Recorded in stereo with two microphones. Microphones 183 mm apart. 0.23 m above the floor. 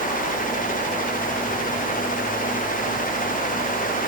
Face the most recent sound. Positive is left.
No sound to turn to.